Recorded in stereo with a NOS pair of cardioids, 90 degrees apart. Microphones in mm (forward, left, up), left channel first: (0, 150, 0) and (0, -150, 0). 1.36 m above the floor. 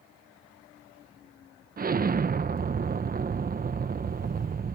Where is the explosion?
30° right.